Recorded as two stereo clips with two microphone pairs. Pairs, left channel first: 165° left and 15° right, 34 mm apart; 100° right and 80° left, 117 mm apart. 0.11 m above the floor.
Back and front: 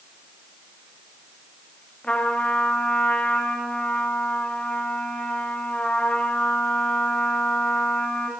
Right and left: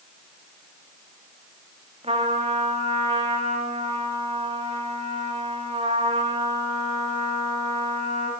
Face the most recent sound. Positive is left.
turn(degrees=115)